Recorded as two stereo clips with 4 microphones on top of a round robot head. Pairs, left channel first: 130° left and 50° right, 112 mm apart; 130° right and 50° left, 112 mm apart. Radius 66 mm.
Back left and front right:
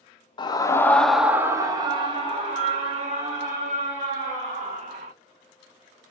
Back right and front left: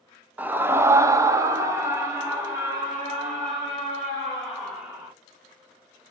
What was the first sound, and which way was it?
A scream, 120° left.